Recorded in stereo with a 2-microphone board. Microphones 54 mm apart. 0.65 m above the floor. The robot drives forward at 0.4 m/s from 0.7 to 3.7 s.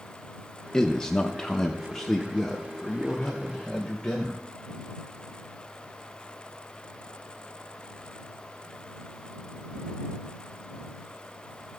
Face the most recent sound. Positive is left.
turn(degrees=5)  # may be behind; listen again after turning